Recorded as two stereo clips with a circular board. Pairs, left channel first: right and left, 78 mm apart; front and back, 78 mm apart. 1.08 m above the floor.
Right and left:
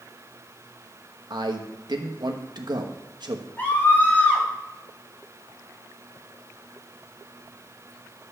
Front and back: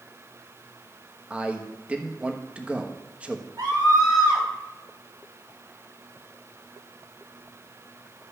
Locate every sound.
1.3 s a man speaking: 105° left, 1.1 m
3.6 s a scream: 155° right, 4.5 m